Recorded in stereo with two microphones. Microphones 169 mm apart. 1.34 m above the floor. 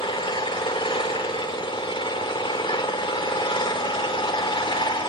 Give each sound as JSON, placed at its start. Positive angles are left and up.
{"t": 0.0, "sound": "an engine running", "side_deg": 30, "distance_m": 2.0}